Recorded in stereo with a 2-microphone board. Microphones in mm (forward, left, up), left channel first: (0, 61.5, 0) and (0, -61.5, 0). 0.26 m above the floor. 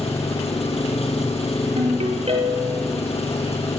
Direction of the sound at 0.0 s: 60° left (ahead or behind).